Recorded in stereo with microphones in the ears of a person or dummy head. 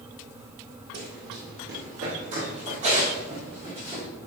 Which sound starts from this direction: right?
Running footsteps, at 0.9 s.